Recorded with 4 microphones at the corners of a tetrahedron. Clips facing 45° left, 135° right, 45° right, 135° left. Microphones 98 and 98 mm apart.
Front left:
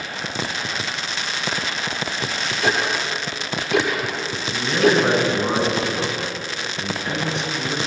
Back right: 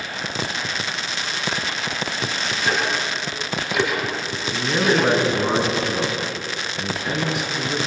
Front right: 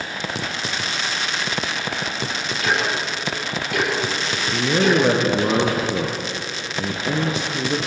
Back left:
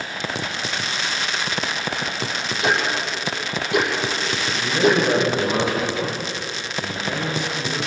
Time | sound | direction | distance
2.6 | ticking | 65° left | 9.5 m
4.5 | a man speaking | 50° right | 5.5 m